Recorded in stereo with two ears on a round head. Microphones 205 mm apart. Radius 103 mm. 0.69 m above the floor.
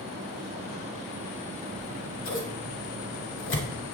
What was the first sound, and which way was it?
Scissors, 55° left (ahead or behind).